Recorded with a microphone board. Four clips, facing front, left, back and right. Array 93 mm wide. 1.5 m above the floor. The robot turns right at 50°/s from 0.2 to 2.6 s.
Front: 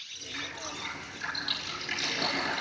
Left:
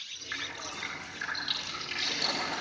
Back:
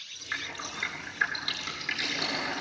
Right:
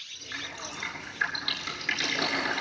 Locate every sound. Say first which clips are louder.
0.3 s dripping: right 1 dB, back 2 dB; 170° left, 9 m; by 2.6 s 75° right, 9 m